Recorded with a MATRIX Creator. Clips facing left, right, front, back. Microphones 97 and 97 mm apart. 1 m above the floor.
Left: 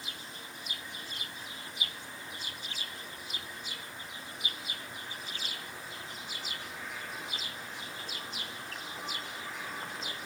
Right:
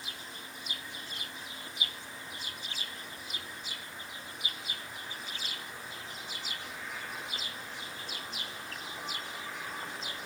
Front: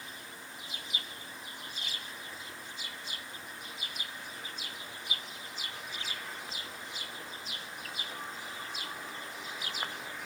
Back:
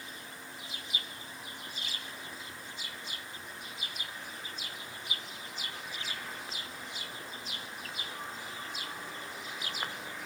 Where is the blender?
I don't hear a blender.